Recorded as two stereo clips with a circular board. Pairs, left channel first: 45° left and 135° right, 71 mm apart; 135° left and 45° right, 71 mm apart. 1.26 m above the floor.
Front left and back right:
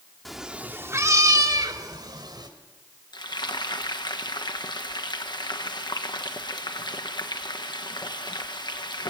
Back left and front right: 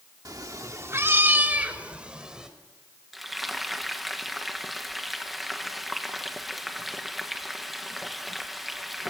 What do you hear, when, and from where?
0.2 s a cat meowing: 45° right, 1.1 m; by 2.5 s 125° right, 2.5 m
3.1 s frying: 45° left, 1.3 m